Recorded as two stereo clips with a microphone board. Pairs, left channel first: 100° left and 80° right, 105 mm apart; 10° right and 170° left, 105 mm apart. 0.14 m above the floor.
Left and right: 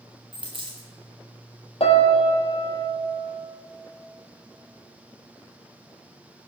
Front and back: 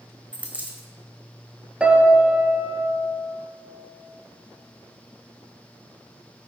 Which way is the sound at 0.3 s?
115° right.